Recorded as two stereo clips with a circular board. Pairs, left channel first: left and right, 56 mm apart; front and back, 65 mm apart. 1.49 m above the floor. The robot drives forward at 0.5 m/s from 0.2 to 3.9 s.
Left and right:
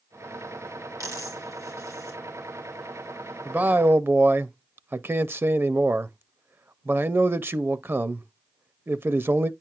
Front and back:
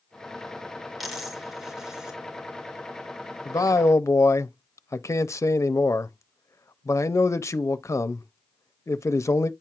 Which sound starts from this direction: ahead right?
A man speaking, at 3.5 s.